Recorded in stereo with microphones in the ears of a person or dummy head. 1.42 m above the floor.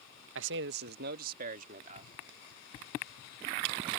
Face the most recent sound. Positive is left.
turn(degrees=-45)  # may be behind; listen again after turning